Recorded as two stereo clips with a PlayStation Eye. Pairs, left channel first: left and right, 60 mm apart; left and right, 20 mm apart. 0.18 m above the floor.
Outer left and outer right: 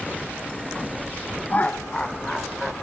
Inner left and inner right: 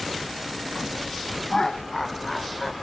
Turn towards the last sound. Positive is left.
turn(degrees=5)  # may be behind; listen again after turning